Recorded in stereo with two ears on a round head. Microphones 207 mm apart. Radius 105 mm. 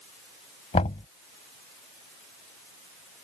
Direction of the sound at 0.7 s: 30° left (ahead or behind).